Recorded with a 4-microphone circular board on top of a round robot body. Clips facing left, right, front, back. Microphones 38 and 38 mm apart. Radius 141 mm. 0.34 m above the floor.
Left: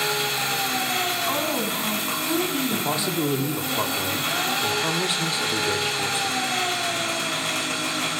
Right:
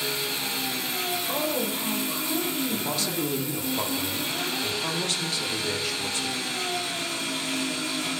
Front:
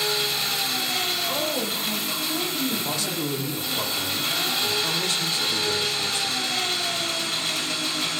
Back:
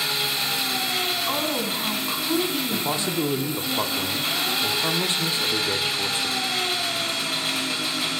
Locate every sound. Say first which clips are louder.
0.0 s an engine running: left 5 dB, even; 100° left, 1.4 m
1.3 s a woman speaking: left 3 dB, back 1 dB; 135° left, 3 m
2.7 s a man speaking: left 4 dB, back 2 dB; 140° left, 0.9 m